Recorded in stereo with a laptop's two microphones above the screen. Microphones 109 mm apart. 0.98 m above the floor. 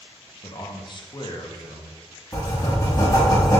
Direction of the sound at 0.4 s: 45° left (ahead or behind).